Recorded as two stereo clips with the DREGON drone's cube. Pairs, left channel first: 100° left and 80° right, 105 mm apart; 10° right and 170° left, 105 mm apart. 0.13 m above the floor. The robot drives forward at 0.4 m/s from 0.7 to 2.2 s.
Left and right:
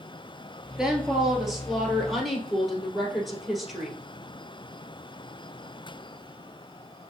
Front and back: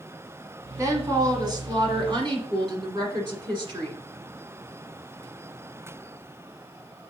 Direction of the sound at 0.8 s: 155° right.